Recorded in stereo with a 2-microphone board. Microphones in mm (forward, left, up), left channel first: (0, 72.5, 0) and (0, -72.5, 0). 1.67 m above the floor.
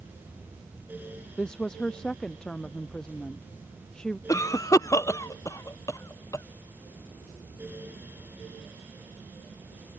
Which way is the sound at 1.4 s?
5° left (ahead or behind).